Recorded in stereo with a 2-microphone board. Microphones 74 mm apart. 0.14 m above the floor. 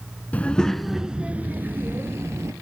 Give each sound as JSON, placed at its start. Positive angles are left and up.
{"t": 0.3, "sound": "a child speaking", "side_deg": 20, "distance_m": 1.2}